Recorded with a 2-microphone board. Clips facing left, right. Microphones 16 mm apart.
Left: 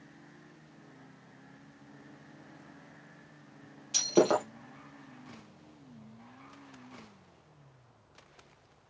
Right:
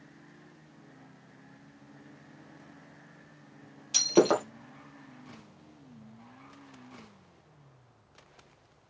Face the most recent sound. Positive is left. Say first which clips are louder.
# right 2 dB
turn(degrees=-15)  # may be behind; listen again after turning